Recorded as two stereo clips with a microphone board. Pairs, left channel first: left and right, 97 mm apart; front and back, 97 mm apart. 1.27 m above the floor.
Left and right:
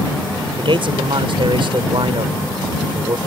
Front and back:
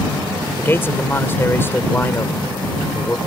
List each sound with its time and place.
0.6 s a man speaking: 65° right